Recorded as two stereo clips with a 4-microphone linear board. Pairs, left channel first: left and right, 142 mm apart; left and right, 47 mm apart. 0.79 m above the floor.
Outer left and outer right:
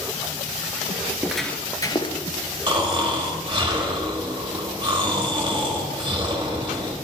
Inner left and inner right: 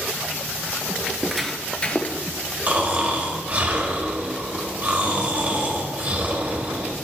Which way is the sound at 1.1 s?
15° right (ahead or behind).